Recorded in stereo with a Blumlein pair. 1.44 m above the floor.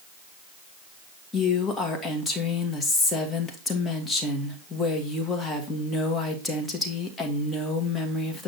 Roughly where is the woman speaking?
Ahead.